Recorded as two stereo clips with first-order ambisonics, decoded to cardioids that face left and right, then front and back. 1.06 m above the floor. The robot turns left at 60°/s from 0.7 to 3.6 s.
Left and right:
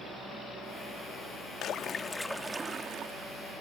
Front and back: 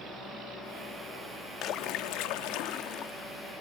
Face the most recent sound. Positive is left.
turn(degrees=-75)